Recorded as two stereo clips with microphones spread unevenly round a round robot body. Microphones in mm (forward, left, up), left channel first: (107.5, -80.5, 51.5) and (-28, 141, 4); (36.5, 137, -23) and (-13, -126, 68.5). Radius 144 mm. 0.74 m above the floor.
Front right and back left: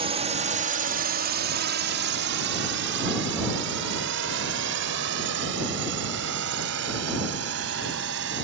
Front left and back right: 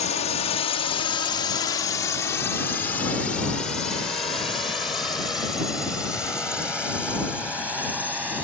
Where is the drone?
80° left; by 8.4 s 170° left.